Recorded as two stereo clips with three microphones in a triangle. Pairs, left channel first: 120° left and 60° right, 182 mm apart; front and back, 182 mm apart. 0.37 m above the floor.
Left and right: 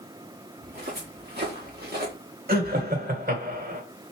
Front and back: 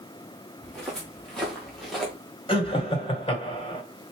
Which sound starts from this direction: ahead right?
Laughter, at 2.5 s.